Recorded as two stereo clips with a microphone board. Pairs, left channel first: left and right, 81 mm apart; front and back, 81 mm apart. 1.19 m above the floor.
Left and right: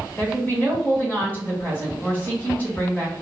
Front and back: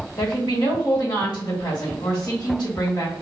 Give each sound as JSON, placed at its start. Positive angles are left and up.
{"t": 0.2, "sound": "a woman speaking", "azimuth_deg": 25, "distance_m": 1.8}